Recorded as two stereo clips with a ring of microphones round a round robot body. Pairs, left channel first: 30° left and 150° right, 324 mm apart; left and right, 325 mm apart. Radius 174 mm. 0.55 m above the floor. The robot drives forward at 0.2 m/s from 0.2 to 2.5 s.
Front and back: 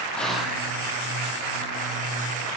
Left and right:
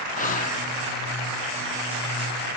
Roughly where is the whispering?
Behind left.